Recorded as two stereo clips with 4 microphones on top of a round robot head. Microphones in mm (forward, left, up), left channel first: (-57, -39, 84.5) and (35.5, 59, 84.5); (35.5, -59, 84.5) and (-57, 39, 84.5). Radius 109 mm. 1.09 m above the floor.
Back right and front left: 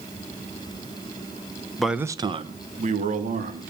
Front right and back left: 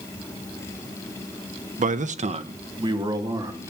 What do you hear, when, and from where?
1.8 s a man speaking: 140° left, 0.9 m; by 3.7 s 65° left, 3 m